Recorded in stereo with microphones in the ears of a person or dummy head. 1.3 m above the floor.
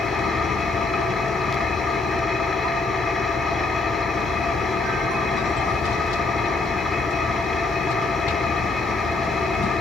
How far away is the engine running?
About 2.5 m.